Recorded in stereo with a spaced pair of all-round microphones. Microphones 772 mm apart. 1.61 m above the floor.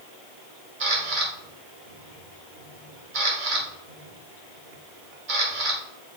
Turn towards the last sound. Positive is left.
turn(degrees=-75)  # may be behind; listen again after turning